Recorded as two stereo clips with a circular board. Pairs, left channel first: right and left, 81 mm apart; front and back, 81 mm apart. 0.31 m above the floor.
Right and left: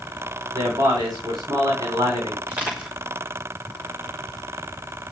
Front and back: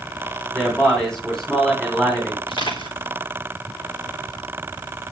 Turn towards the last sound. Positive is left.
turn(degrees=15)